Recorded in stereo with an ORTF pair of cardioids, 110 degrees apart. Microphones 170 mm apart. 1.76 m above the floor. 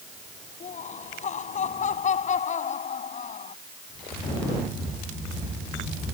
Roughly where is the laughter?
Ahead left.